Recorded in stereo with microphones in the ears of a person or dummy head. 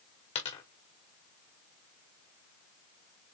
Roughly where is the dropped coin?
Left.